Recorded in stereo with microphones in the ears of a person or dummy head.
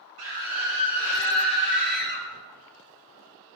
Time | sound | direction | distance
0.2 | a scream | 80° right | 4 m